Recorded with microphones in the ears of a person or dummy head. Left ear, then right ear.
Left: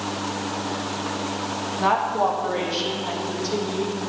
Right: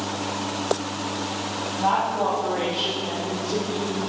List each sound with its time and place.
1.8 s a woman speaking: 70° left (ahead or behind), 1.6 m; by 4.0 s 85° left, 4.5 m